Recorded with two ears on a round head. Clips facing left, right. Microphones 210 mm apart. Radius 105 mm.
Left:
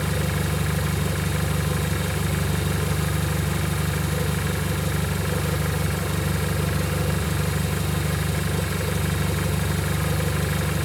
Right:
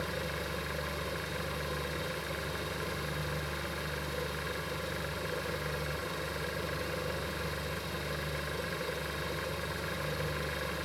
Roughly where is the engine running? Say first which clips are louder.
Left 10 dB; left.